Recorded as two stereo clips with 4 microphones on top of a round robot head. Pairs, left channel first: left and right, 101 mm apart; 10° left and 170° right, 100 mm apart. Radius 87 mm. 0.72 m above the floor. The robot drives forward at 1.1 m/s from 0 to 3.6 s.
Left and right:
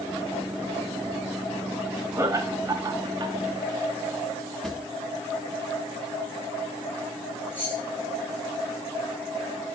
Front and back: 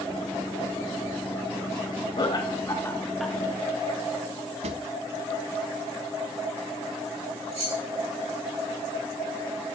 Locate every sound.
2.2 s laughter: 30° right, 1.7 m; by 3.4 s 90° right, 1.1 m
4.6 s a drawer: 175° left, 0.8 m
7.5 s keys jangling: 165° left, 3.5 m